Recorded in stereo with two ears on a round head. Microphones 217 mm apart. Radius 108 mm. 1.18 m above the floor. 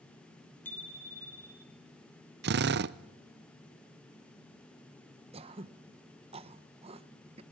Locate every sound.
0.7 s a bicycle bell: 10° left (ahead or behind), 3 m; by 1.7 s 15° left (ahead or behind), 2 m
2.4 s a drill: 45° right (ahead or behind), 0.6 m
5.3 s throat clearing: 25° right (ahead or behind), 0.8 m